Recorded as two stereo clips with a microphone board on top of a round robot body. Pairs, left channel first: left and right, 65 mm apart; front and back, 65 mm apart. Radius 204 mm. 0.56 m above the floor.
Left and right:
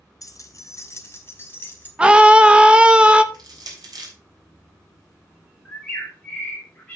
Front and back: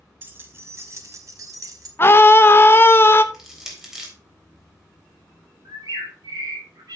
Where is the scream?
25° right, 1.1 m.